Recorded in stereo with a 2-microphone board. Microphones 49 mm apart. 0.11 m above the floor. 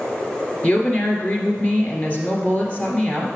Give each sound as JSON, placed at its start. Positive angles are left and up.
{"t": 0.6, "sound": "a woman speaking", "side_deg": 35, "distance_m": 1.7}